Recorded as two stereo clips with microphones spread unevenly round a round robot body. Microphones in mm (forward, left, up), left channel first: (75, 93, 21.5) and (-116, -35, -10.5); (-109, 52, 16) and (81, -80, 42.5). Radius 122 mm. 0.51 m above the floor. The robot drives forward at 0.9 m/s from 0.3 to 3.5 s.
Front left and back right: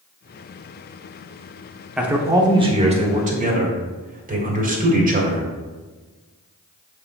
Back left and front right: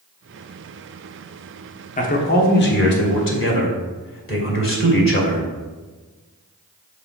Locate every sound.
2.0 s a man speaking: 135° left, 1.1 m; by 5.5 s 165° left, 2 m